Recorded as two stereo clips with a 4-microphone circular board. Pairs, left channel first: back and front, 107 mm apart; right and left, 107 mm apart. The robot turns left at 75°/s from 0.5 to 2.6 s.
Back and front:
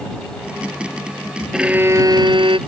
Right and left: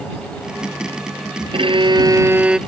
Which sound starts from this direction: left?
A violin, at 1.5 s.